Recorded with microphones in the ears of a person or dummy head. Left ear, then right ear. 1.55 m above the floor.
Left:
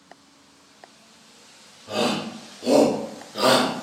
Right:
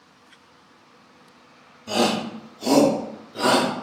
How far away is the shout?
About 1.0 m.